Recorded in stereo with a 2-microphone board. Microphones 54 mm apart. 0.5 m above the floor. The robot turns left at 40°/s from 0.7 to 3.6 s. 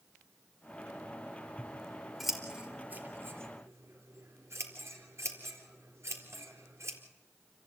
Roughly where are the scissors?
Left.